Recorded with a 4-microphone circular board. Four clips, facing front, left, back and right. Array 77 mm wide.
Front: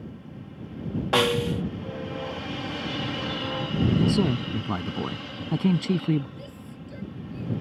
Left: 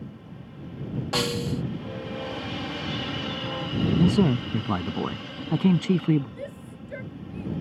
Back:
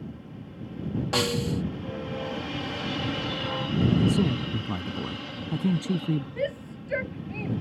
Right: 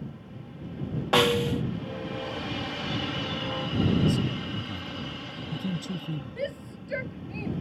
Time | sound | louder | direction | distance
1.1 | a snare drum | right 6 dB, front 5 dB | 50° right | ?
4.0 | a man speaking | left 6 dB, front 1 dB | 70° left | ?
6.4 | a shout | right 4 dB, back 11 dB | 160° right | ?